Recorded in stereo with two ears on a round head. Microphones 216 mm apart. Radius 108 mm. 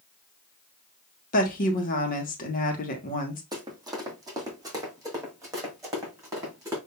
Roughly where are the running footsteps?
Centre.